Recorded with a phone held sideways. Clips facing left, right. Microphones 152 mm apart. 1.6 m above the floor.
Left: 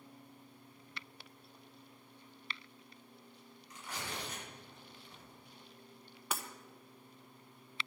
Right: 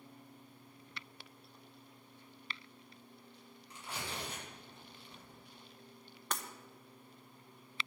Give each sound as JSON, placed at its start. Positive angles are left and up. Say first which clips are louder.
{"t": 3.7, "sound": "tearing paper", "louder": "even", "side_deg": -30, "distance_m": 7.0}
{"t": 6.3, "sound": "breaking glass", "louder": "even", "side_deg": 5, "distance_m": 0.9}